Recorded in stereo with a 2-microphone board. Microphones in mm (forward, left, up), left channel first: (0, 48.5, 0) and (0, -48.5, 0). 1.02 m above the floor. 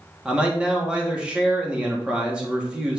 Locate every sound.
0.2 s a man speaking: 10° right (ahead or behind), 1.7 m